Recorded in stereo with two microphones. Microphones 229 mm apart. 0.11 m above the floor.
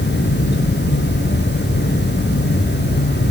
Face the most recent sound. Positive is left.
No sound to turn to.